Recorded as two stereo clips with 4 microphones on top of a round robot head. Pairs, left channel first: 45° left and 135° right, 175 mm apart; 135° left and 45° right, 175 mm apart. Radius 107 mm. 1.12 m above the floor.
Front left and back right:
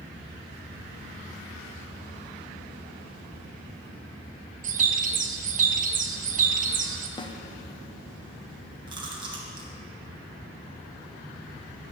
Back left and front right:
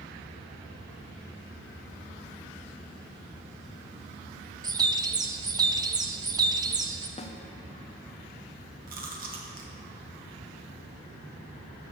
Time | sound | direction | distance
4.6 | a bird | 105° right | 0.7 m
7.2 | a snare drum | 100° left | 0.7 m
8.9 | chewing | 75° right | 1.3 m